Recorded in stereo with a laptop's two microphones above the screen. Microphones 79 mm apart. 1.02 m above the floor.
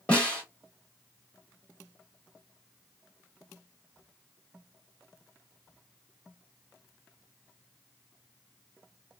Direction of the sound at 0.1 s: 15° left (ahead or behind).